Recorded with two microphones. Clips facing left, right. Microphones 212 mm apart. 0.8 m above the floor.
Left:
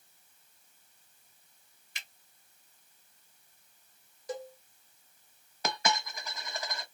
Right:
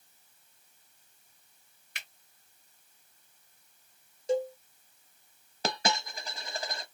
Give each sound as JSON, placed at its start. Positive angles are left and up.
{"t": 1.9, "sound": "a finger snap", "side_deg": -65, "distance_m": 2.0}
{"t": 4.3, "sound": "a cowbell", "side_deg": -25, "distance_m": 0.8}
{"t": 5.6, "sound": "a dropped coin", "side_deg": -30, "distance_m": 0.9}